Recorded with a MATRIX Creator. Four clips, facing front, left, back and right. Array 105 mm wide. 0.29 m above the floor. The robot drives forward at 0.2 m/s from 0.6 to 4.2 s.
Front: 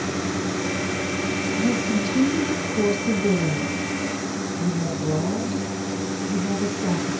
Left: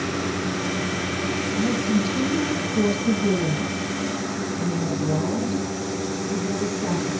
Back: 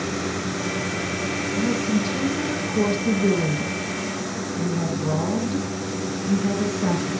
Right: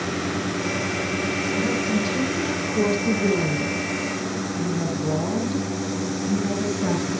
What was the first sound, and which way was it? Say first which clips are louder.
A woman speaking: left 2 dB, back 1 dB; 160° right.